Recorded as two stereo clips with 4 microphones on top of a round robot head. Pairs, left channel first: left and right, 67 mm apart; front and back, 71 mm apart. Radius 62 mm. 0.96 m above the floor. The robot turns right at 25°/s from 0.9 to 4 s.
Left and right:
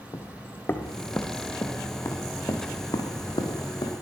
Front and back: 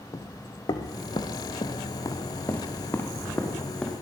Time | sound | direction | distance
0.1 | footsteps | 40° left | 2 m